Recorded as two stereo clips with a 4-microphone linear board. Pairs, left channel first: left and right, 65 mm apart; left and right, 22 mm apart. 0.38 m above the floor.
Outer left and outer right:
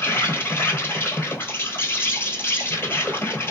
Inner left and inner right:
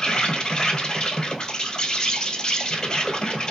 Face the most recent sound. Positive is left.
turn(degrees=35)  # may be behind; listen again after turning